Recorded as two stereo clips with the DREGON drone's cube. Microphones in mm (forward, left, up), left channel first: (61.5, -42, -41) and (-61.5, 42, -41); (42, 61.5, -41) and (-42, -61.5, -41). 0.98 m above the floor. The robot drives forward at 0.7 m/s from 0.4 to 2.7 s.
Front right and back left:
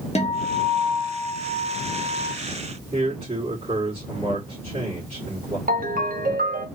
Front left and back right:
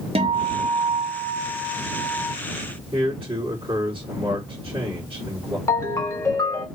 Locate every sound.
0.1 s a guitar: 75° right, 0.8 m; by 2.3 s 150° right, 1.4 m
2.9 s a man speaking: 175° right, 1.9 m
5.7 s a ringtone: 125° left, 0.8 m